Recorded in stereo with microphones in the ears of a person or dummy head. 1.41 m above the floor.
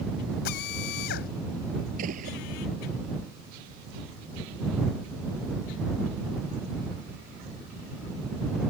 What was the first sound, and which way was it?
A drill, 60° left (ahead or behind).